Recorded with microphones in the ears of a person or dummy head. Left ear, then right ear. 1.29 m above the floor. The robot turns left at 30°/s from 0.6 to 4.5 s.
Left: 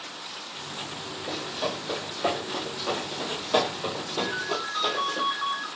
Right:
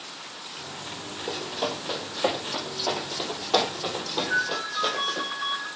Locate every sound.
1.3 s running footsteps: 45° right (ahead or behind), 2.5 m; by 5.2 s 10° right (ahead or behind), 3 m
4.2 s a ringtone: 25° right (ahead or behind), 3 m; by 5.7 s 15° right (ahead or behind), 3 m